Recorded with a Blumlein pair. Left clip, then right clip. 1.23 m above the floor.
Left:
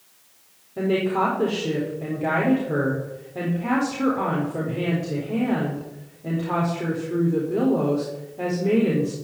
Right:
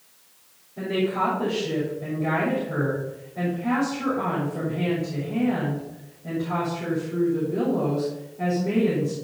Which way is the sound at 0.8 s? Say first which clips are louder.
Left 3 dB; 60° left.